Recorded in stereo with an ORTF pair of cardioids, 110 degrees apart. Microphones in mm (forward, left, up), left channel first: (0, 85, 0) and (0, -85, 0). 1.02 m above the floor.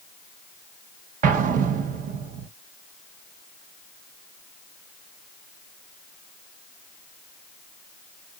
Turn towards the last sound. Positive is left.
turn(degrees=-55)